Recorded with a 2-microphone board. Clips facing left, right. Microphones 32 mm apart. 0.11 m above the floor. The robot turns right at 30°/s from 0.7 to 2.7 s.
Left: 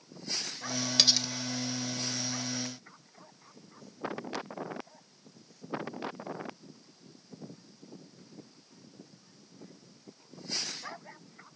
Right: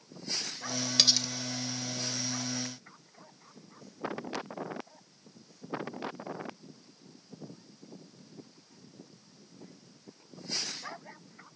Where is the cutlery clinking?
Centre (ahead or behind), 0.9 m; by 1.3 s 10° left (ahead or behind), 0.9 m.